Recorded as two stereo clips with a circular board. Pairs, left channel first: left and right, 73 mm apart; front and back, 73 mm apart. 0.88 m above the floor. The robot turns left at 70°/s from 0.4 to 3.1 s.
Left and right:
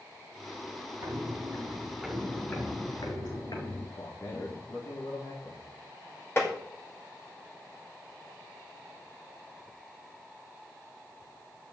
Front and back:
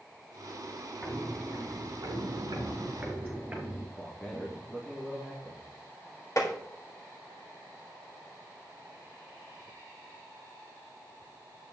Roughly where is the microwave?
No microwave in this recording.